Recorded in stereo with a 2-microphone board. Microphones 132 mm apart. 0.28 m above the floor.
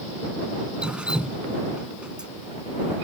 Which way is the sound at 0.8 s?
10° right (ahead or behind).